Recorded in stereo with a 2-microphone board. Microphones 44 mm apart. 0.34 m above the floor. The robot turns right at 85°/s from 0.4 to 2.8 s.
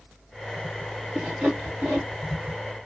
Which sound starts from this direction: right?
Sawing, at 1.1 s.